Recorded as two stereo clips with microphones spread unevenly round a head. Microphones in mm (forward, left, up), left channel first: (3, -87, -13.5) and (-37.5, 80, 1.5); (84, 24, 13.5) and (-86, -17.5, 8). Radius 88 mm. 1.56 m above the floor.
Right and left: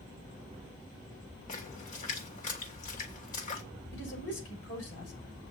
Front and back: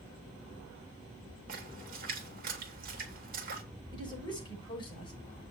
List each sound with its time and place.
1.5 s a splash: 125° right, 2.5 m
3.9 s a woman speaking: 50° right, 6.5 m